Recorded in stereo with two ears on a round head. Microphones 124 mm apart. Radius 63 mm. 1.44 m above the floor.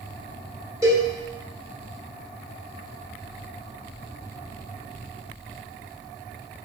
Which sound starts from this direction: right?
A cowbell, at 0.8 s.